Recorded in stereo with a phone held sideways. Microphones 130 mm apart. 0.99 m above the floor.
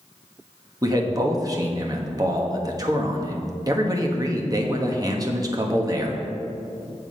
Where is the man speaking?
30° right (ahead or behind), 1.2 m.